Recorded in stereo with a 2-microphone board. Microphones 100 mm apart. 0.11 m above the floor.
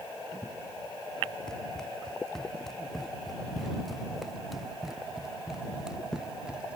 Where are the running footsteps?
5° left (ahead or behind); by 6.8 s 10° right (ahead or behind).